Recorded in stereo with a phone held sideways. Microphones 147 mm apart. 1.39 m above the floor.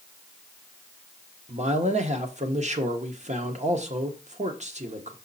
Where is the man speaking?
50° right (ahead or behind), 1.1 m.